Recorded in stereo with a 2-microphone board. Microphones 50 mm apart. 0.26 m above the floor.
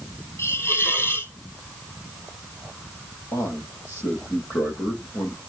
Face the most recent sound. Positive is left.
turn(degrees=75)  # may be behind; listen again after turning